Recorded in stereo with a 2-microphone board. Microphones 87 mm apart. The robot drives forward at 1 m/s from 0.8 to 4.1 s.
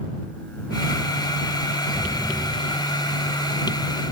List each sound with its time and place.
1.9 s an explosion: centre (ahead or behind), 2 m